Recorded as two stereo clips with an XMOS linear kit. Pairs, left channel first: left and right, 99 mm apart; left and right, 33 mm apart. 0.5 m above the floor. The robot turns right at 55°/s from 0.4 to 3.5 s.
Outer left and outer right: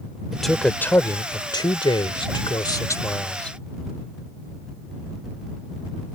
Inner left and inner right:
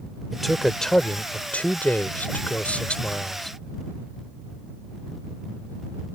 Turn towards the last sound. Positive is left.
turn(degrees=170)